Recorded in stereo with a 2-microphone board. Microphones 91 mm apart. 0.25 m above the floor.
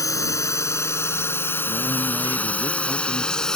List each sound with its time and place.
0.0 s a drone: 35° left (ahead or behind); by 3.6 s 5° left (ahead or behind)
1.7 s a man speaking: 45° right (ahead or behind)